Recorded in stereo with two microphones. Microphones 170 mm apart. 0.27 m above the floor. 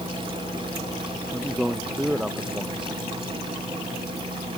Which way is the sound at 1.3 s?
5° right (ahead or behind).